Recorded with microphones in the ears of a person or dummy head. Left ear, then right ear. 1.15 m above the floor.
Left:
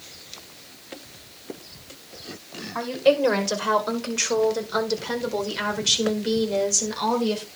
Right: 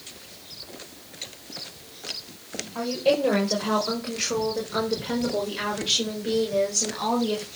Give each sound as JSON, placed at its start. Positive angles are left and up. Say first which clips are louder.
{"t": 2.8, "sound": "a woman speaking", "louder": "left 3 dB", "side_deg": 60, "distance_m": 5.5}